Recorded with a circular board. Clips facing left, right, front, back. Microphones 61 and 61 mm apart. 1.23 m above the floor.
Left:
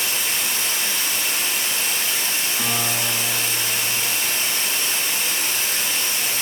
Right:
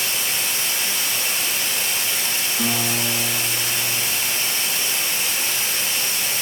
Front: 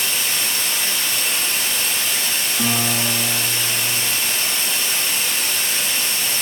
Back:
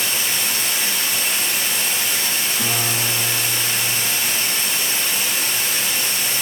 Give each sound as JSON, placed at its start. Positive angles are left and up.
{"t": 0.0, "sound": "running water", "azimuth_deg": 100, "distance_m": 2.0}
{"t": 2.6, "sound": "a guitar", "azimuth_deg": 30, "distance_m": 1.3}